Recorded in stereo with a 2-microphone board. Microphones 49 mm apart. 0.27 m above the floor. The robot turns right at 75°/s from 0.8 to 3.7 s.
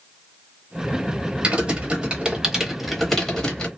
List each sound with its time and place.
1.4 s typing on a keyboard: 20° right (ahead or behind), 1.0 m; by 3.7 s 15° left (ahead or behind), 1.0 m